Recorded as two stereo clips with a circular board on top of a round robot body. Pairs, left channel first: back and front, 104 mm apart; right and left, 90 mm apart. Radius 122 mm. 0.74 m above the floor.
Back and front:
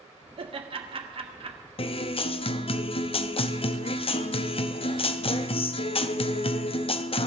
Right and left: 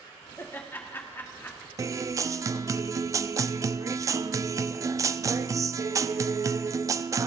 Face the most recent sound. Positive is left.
turn(degrees=145)